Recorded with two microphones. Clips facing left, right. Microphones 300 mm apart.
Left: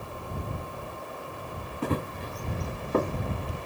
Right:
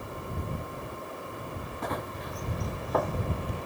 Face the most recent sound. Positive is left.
turn(degrees=30)  # may be behind; listen again after turning